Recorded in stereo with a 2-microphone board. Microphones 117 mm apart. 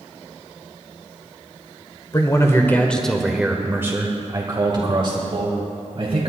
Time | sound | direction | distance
2.1 | a man speaking | 30° left (ahead or behind) | 1.1 m